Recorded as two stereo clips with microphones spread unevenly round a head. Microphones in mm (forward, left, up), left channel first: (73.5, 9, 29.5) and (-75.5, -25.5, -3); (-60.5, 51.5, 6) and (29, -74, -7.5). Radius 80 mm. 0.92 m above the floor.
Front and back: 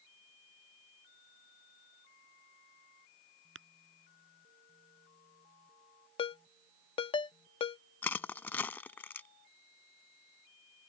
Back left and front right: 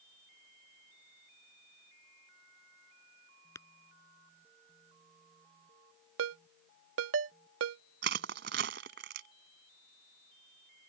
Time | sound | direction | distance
3.5 | tapping | 165° right | ?
6.2 | a ringtone | 45° right | ?
8.0 | crushing | 60° right | ?